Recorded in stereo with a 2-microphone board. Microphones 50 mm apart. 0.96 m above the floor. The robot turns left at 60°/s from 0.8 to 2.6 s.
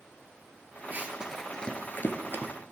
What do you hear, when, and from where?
0.9 s running footsteps: 40° right (ahead or behind), 1.2 m; by 2.5 s 40° left (ahead or behind), 1.5 m